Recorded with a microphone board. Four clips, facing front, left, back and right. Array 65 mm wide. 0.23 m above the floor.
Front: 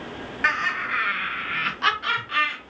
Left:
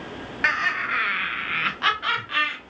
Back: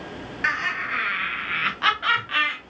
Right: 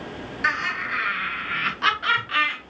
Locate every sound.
0.4 s laughter: 75° left, 1.2 m; by 2.6 s 165° right, 1.1 m